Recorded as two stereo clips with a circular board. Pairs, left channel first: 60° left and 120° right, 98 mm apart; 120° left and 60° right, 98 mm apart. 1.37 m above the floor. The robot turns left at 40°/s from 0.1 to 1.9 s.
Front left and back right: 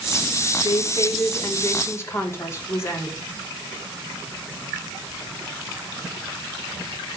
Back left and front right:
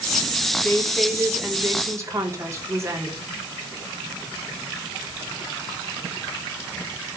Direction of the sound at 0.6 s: 50° left.